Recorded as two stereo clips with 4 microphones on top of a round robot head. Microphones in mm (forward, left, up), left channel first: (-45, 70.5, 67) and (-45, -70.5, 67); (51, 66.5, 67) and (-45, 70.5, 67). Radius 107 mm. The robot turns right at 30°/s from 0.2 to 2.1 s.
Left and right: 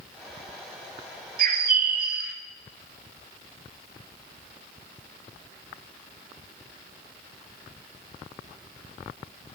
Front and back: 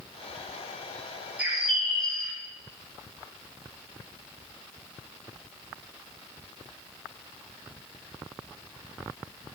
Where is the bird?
105° right, 1.4 m; by 2.4 s 85° right, 1.4 m.